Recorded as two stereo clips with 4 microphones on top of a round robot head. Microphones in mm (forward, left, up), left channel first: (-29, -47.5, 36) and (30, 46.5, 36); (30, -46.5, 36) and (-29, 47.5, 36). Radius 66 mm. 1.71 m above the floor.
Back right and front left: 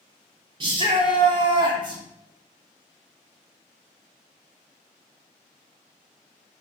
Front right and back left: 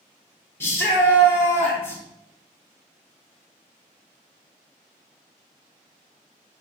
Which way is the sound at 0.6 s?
10° left.